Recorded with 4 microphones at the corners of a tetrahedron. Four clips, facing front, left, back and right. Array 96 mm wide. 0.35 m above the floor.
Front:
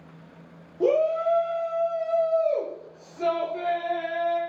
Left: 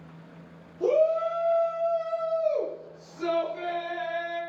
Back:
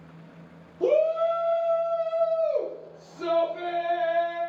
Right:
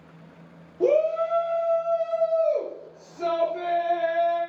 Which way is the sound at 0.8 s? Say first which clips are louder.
Right 2 dB, even; 45° right.